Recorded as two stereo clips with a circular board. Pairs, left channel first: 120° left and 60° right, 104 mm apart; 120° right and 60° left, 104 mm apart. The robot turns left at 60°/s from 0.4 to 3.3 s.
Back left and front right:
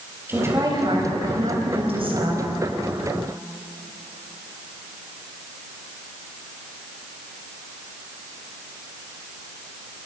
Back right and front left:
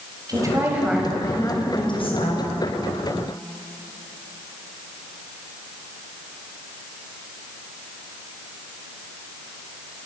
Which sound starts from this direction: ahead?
A woman speaking, at 0.3 s.